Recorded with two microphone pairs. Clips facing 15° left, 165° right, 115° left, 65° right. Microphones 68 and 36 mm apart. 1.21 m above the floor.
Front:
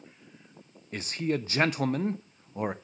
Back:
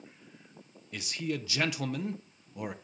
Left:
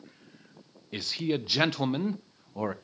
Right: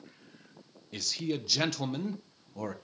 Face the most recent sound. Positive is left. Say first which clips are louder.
# front 5 dB, left 4 dB
turn(degrees=60)